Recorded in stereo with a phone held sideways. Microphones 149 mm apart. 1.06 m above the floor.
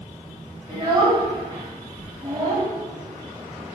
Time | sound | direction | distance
0.7 | a child speaking | 30° right (ahead or behind) | 3 m